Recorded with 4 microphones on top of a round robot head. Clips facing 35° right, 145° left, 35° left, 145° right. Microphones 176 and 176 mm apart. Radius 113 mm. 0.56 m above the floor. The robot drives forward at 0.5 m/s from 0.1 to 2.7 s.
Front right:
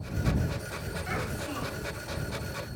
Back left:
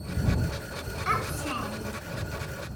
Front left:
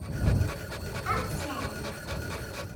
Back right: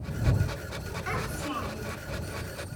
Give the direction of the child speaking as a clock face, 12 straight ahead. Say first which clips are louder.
Back left 3 dB, even; 7 o'clock.